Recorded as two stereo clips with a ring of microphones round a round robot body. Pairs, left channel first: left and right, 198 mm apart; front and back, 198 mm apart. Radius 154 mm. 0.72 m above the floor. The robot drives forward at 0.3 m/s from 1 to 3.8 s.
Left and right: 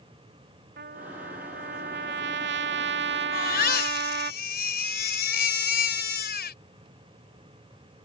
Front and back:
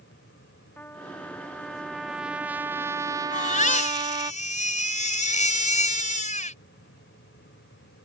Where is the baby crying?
50° left; by 6.6 s 55° left.